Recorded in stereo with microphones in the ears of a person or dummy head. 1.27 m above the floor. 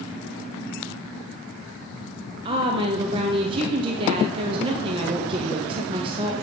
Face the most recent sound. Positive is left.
turn(degrees=-30)  # may be behind; listen again after turning